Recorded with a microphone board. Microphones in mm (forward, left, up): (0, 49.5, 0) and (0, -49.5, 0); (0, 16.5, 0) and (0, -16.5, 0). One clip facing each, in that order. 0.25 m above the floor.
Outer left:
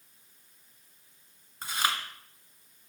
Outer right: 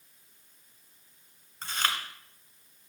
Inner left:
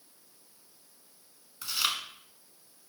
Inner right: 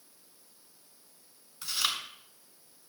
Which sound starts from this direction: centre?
Chewing, at 1.6 s.